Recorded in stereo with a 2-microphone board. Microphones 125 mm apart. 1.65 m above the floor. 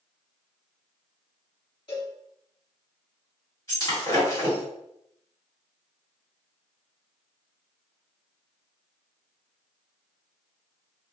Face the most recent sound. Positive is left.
turn(degrees=35)  # may be behind; listen again after turning